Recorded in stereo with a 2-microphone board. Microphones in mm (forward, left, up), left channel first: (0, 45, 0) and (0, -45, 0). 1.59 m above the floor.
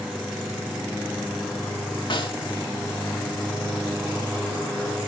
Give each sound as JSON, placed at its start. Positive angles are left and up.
{"t": 2.1, "sound": "a snare drum", "side_deg": 70, "distance_m": 1.8}